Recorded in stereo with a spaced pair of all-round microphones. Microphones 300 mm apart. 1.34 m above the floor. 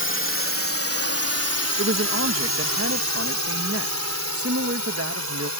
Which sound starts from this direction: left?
A drone, at 0.0 s.